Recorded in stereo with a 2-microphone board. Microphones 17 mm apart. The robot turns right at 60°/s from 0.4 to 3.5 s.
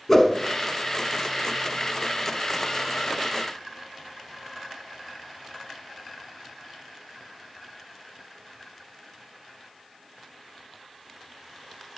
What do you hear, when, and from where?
0.1 s a whoosh: 5° left (ahead or behind), 1.0 m